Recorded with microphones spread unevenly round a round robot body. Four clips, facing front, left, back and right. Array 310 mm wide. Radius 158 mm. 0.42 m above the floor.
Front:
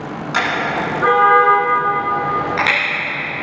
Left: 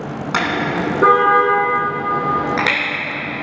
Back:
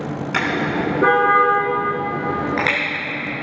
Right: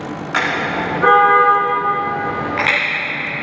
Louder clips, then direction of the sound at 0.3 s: Even, front 2 dB; 135° left.